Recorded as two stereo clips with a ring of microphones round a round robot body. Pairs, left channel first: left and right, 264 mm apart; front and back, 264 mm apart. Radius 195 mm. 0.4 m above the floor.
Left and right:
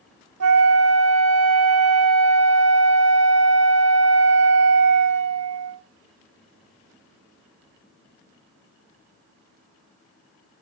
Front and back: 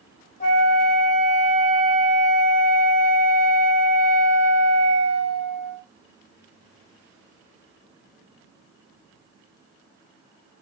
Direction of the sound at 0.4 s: 65° right.